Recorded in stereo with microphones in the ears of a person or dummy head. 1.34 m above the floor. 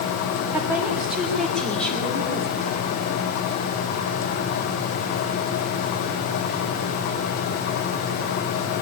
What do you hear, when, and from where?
0.5 s a woman speaking: 15° right (ahead or behind), 2 m; by 2.7 s 10° left (ahead or behind), 3.5 m